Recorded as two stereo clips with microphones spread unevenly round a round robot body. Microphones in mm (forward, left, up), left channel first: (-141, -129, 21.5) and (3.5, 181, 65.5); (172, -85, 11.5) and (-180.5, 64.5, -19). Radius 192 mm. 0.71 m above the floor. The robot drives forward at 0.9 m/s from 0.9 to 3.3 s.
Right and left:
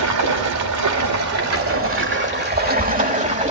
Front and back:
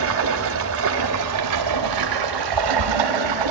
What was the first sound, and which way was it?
Running water, 100° left.